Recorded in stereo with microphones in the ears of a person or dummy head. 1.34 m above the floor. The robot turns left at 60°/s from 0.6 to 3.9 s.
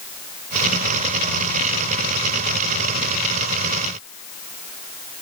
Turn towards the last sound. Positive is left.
No sound to turn to.